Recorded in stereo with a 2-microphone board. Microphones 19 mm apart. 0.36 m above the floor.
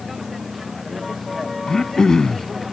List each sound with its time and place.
0.0 s a vehicle: 10° right (ahead or behind); by 2.7 s 5° right (ahead or behind)
1.7 s throat clearing: 30° left (ahead or behind)